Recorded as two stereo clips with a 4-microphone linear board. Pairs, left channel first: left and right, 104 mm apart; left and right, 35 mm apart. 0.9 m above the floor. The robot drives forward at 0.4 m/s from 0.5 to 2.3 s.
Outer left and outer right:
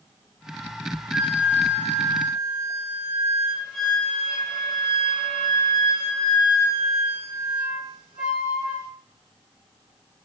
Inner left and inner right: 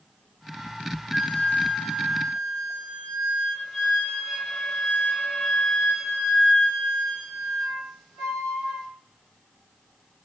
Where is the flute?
5° left (ahead or behind), 0.7 m; by 8.9 s centre (ahead or behind), 1.2 m.